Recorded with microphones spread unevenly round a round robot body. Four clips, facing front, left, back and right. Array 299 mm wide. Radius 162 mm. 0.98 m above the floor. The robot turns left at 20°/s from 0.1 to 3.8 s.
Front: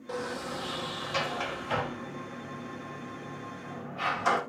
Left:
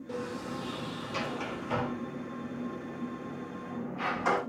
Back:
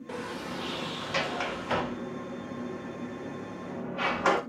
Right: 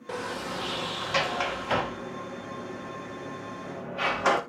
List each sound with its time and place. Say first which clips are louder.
0.1 s a sliding door: right 4 dB, front 2 dB; 75° right, 2.0 m; by 4.4 s 150° right, 2.0 m